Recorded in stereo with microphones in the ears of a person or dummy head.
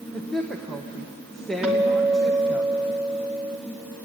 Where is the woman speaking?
5° left (ahead or behind), 1.3 m.